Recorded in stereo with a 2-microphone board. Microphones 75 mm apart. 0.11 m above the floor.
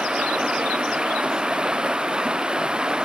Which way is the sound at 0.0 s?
10° right (ahead or behind).